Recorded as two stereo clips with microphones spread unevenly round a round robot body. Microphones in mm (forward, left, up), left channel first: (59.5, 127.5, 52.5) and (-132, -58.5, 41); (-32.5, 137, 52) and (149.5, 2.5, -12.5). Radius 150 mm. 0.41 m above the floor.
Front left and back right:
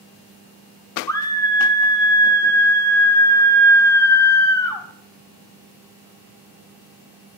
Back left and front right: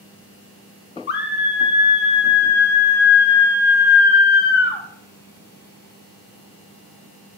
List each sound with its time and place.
1.1 s a scream: 115° left, 0.9 m